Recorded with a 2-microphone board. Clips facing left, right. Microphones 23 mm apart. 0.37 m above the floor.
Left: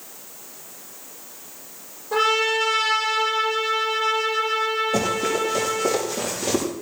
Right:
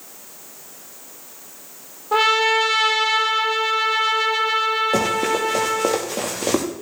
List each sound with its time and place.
2.1 s a trumpet: 40° right (ahead or behind), 7 m
4.9 s running footsteps: 75° right (ahead or behind), 6 m; by 6.7 s 80° right, 5 m